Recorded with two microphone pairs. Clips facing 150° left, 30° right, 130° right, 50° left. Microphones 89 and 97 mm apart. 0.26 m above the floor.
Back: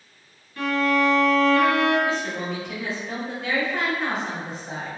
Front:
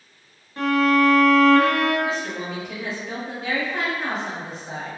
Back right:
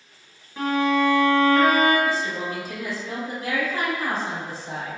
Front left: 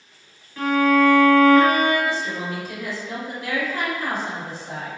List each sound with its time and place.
0.6 s a violin: 70° right, 0.9 m
2.0 s a woman speaking: 115° right, 1.5 m